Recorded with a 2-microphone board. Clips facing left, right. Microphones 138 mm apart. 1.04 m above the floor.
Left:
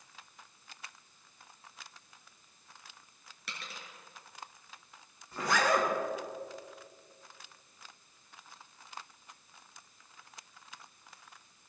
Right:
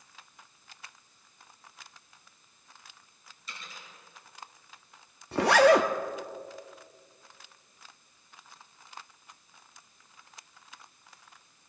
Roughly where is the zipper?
Right.